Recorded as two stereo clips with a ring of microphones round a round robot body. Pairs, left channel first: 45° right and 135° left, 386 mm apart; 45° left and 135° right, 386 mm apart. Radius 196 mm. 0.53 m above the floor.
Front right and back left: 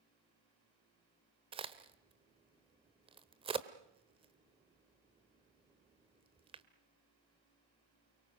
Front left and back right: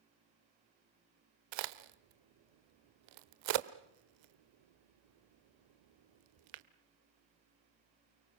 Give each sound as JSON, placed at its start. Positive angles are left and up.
{"t": 1.5, "sound": "a crack", "azimuth_deg": -150, "distance_m": 1.2}